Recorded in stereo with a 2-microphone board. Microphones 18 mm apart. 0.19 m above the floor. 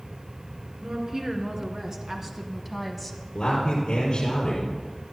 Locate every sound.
0.8 s a woman speaking: 35° right (ahead or behind), 3 m; by 3.2 s 10° left (ahead or behind), 1.6 m
3.4 s a man speaking: 55° left (ahead or behind), 5.5 m